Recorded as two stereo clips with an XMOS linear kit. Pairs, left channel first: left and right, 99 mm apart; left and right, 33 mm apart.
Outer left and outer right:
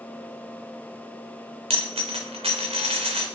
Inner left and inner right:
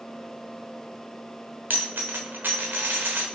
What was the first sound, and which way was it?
A dropped coin, 85° right.